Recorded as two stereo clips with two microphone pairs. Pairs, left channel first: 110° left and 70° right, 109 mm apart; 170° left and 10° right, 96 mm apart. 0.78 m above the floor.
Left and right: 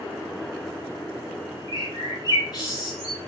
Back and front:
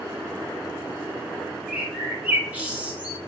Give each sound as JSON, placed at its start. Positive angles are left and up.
{"t": 1.7, "sound": "a bird", "azimuth_deg": 65, "distance_m": 1.3}